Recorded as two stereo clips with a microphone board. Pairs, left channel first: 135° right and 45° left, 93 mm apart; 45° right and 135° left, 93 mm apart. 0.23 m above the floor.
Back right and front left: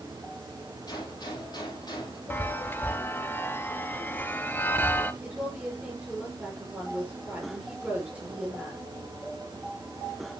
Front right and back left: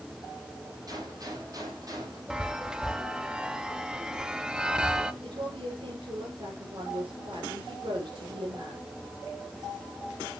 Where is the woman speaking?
120° left, 5.5 m.